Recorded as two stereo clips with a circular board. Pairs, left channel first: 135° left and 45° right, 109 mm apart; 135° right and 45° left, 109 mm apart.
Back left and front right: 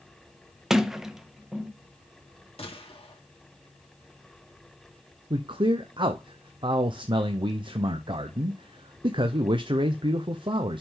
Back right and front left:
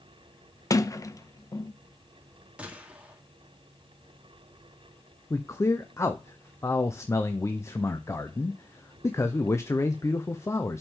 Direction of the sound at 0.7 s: 130° right.